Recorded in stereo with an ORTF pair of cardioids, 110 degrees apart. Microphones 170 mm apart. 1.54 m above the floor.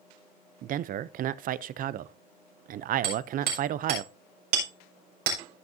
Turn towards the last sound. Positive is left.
turn(degrees=-65)